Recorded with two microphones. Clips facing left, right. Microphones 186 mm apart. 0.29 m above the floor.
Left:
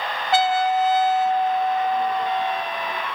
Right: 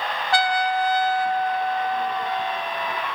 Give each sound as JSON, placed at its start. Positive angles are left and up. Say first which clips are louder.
{"t": 0.3, "sound": "a trumpet", "louder": "left 3 dB", "side_deg": 20, "distance_m": 0.5}